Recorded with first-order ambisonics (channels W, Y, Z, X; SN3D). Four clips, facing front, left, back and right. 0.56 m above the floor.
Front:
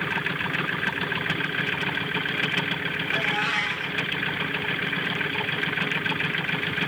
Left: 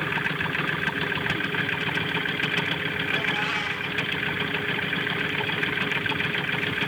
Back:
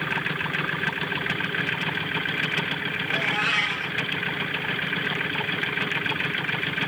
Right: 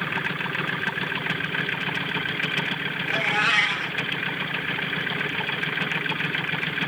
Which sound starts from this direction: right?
A cat meowing, at 3.1 s.